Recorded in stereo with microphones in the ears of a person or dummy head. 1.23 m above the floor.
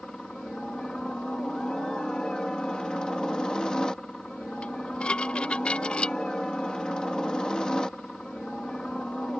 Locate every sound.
0.0 s a helicopter: centre (ahead or behind)
4.6 s dishes clattering: 10° left (ahead or behind)